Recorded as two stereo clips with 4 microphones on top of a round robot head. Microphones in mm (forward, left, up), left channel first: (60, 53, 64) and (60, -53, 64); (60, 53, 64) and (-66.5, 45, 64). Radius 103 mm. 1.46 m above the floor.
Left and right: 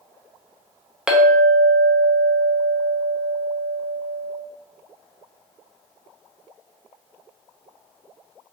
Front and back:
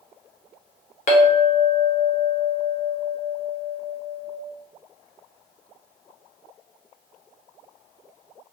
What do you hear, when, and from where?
1.1 s a clink: 10° right, 0.5 m